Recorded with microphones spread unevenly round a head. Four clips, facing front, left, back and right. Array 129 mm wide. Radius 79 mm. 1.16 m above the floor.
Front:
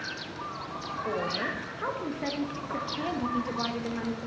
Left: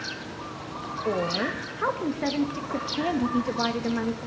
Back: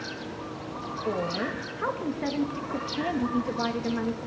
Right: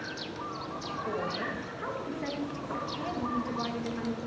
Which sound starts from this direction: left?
A woman speaking, at 1.1 s.